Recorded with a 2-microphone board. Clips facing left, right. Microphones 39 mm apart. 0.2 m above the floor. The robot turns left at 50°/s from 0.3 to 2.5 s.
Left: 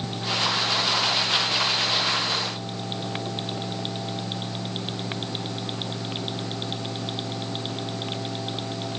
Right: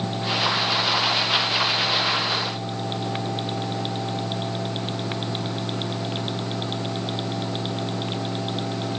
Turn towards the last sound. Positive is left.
No sound to turn to.